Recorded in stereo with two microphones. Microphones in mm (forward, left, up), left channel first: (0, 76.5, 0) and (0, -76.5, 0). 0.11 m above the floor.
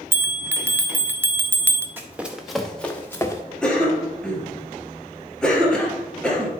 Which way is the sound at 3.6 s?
5° left (ahead or behind).